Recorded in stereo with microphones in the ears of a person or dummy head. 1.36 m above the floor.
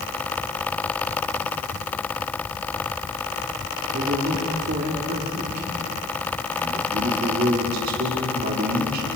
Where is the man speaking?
60° right (ahead or behind), 3.5 m.